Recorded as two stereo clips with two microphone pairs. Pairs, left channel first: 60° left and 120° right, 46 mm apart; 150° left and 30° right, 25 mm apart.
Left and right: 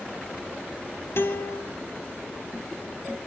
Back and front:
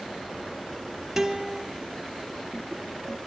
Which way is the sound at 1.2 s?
45° left.